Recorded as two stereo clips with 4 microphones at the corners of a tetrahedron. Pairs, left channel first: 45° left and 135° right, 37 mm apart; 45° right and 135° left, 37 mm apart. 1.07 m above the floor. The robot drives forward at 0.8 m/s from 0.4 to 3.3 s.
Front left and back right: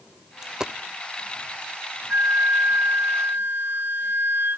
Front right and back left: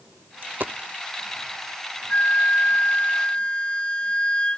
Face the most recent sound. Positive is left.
turn(degrees=-110)